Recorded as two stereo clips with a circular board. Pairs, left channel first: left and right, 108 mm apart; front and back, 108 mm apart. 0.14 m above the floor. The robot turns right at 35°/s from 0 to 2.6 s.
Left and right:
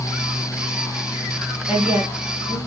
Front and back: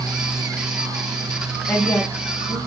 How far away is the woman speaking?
About 1.2 m.